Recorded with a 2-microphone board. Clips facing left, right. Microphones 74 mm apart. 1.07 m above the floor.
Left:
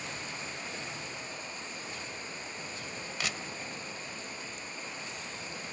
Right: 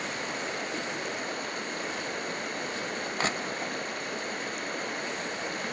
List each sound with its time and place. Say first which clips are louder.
0.0 s running water: right 7 dB; 65° right (ahead or behind), 2 m
3.2 s crushing: right 7 dB; 40° right (ahead or behind), 1.2 m